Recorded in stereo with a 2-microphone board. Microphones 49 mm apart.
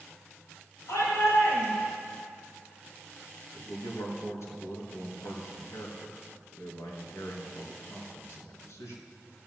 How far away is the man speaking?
About 3.5 m.